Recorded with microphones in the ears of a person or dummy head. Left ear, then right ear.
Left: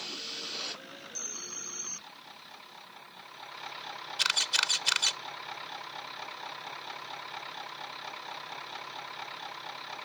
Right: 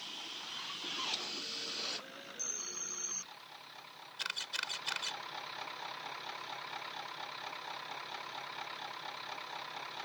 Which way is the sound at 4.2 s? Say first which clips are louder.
Left 11 dB; 30° left (ahead or behind).